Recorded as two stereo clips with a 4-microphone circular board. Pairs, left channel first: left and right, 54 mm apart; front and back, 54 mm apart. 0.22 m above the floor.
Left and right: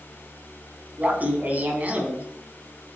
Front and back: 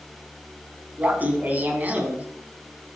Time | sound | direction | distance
1.0 | laughter | 135° right | 1.6 m